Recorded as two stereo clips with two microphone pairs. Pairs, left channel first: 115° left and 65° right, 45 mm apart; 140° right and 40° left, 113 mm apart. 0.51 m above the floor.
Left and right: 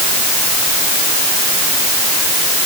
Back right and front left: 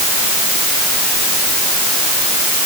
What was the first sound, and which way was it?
Only background noise.